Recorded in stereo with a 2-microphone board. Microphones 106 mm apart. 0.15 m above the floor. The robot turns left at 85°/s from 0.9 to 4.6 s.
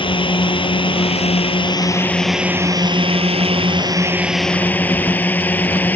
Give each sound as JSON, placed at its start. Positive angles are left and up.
{"t": 0.0, "sound": "a drone", "side_deg": 55}